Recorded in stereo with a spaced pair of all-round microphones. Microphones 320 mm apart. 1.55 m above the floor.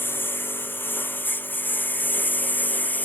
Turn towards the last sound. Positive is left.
turn(degrees=5)  # may be behind; listen again after turning